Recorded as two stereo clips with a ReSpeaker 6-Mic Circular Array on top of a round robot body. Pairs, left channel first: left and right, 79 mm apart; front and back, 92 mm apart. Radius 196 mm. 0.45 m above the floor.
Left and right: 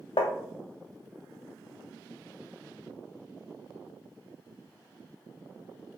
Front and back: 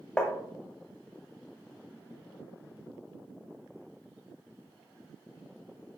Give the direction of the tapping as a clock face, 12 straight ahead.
9 o'clock.